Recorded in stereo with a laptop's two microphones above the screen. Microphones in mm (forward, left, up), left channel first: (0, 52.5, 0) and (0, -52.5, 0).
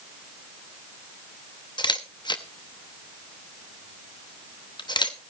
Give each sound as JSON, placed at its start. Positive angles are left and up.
{"t": 1.8, "sound": "a camera shutter", "side_deg": 45, "distance_m": 0.8}